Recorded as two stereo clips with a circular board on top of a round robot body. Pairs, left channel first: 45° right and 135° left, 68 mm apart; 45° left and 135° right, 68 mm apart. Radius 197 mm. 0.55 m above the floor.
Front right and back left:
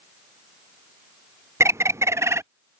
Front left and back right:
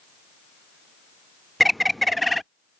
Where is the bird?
135° left.